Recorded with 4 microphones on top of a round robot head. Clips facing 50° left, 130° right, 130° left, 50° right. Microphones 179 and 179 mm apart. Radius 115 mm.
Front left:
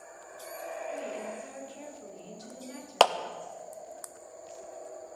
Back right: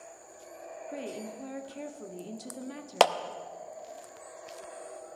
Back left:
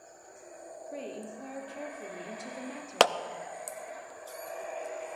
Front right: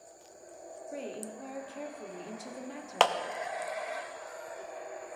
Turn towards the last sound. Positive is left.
turn(degrees=150)